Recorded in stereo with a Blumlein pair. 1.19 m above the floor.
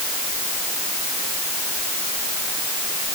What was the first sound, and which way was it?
Only background noise.